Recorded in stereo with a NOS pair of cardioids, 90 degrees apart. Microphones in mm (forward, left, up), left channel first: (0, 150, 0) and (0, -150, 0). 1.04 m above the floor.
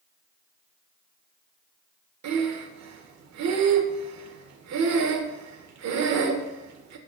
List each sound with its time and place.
2.2 s breathing: 65° right, 1.5 m